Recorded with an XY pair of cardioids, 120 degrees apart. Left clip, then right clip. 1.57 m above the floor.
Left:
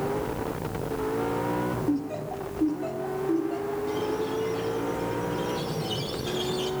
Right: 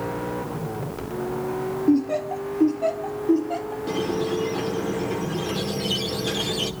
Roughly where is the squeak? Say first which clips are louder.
Right 7 dB; ahead right.